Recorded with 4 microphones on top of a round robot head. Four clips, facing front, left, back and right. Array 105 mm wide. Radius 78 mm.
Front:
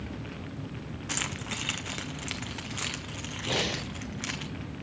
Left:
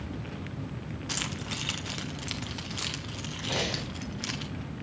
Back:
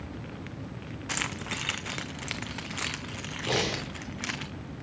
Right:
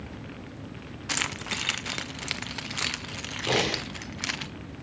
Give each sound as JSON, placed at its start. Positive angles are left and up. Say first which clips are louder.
{"t": 1.1, "sound": "keys jangling", "louder": "right 6 dB, back 2 dB", "azimuth_deg": -115, "distance_m": 0.5}
{"t": 3.5, "sound": "breathing", "louder": "right 6 dB, back 2 dB", "azimuth_deg": -110, "distance_m": 2.5}